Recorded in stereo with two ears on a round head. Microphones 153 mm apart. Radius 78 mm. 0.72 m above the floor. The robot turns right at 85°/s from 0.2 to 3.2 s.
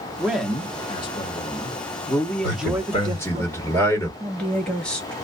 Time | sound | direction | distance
0.2 | a man speaking | 15° right | 0.8 m
2.4 | a man speaking | 100° left | 1.4 m
4.2 | a woman speaking | 5° left (ahead or behind) | 1.1 m